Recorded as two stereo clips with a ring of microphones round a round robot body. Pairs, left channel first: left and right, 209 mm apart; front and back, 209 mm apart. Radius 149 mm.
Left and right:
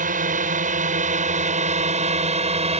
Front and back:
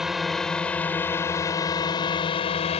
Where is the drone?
95° right; by 2.8 s 50° right.